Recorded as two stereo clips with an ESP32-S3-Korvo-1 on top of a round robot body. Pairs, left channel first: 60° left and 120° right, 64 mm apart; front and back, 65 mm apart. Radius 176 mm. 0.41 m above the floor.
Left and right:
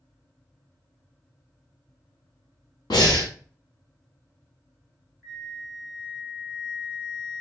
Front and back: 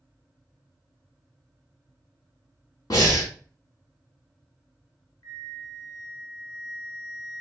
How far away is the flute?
About 0.7 m.